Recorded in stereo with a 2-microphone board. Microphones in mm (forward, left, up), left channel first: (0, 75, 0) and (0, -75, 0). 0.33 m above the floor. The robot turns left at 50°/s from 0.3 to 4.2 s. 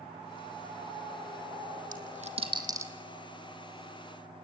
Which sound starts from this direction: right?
A dropped coin, at 1.9 s.